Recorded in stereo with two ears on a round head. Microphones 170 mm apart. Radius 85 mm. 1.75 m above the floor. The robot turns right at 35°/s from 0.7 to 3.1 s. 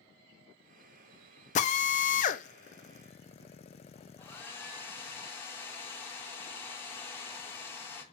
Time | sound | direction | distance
1.6 | a drill | 40° left (ahead or behind) | 0.7 m
4.2 | a hair dryer | 10° left (ahead or behind) | 1.6 m